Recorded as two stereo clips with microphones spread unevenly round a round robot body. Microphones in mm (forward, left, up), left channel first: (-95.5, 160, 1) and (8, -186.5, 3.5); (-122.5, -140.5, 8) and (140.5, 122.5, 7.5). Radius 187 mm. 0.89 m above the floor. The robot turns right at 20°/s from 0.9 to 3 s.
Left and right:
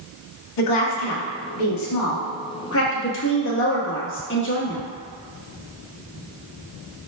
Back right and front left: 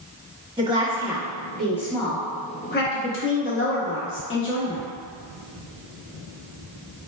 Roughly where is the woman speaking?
Behind left.